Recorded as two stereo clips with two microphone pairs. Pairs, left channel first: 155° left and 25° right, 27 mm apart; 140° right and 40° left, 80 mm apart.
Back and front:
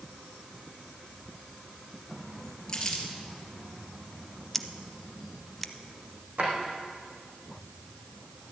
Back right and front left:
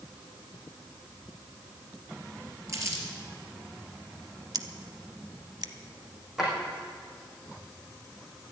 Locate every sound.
2.7 s crumpling: 90° left, 3 m
4.5 s scissors: 75° left, 0.7 m
6.4 s a drawer: 45° right, 4 m